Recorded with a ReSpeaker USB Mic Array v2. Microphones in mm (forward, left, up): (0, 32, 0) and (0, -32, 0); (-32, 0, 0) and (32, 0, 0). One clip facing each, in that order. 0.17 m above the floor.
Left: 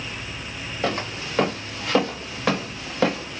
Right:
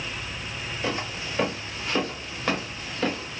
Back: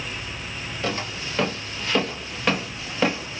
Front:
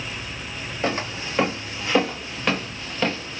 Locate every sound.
0.8 s footsteps: 60° left, 1.7 m; by 3.4 s 110° left, 1.5 m